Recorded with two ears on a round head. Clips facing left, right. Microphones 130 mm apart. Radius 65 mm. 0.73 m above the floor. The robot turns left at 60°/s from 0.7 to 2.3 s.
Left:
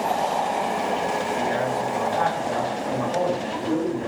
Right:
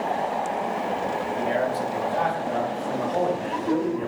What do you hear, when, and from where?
1.4 s a man speaking: 125° right, 1.2 m; by 4.1 s straight behind, 1.2 m